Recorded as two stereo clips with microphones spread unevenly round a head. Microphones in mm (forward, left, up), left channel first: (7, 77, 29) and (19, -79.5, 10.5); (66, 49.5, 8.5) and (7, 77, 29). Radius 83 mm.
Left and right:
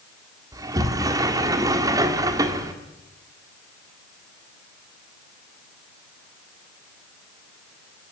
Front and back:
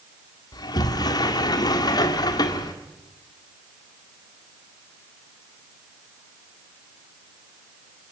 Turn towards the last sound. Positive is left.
turn(degrees=-15)